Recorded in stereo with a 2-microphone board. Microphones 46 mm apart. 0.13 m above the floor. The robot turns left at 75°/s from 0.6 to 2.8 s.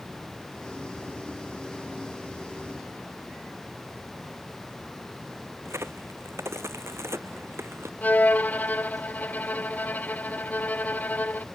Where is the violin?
35° left (ahead or behind).